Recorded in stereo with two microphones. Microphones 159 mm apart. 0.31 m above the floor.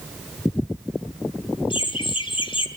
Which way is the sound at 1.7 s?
35° left (ahead or behind).